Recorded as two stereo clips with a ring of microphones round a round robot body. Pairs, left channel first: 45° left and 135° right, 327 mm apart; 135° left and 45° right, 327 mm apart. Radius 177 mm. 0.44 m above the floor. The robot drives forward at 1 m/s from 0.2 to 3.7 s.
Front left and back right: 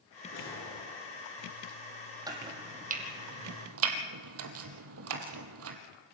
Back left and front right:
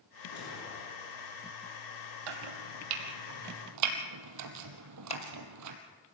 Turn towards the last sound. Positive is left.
turn(degrees=-155)